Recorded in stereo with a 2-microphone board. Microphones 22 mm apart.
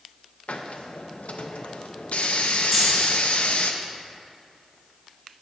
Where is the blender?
No blender in this recording.